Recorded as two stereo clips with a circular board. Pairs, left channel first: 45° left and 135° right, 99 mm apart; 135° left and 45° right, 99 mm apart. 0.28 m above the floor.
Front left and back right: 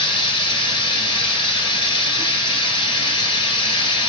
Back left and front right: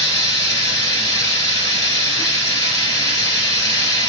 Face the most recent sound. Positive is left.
turn(degrees=80)